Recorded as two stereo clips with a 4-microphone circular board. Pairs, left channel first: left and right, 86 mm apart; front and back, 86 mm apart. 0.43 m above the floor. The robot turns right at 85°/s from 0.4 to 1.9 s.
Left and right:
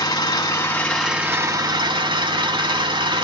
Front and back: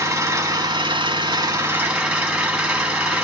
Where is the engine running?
125° left, 0.8 m; by 3.2 s 110° right, 0.8 m.